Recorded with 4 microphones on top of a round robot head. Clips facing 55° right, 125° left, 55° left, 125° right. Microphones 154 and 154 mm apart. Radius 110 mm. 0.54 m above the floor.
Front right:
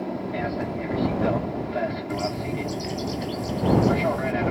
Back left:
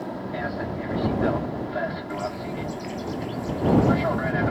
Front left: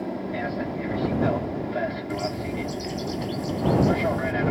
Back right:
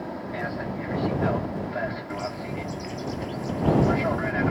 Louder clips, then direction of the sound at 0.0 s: Front right 2 dB, front left 3 dB; 10° left.